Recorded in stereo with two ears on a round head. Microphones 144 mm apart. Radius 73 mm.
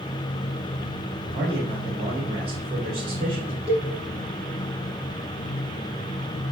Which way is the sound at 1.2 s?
45° right (ahead or behind).